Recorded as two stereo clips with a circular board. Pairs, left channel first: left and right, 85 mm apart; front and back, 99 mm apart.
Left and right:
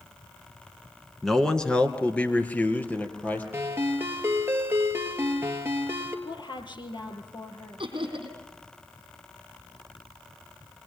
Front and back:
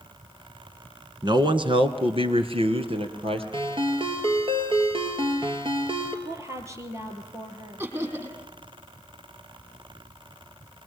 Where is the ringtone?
150° right, 2.5 m.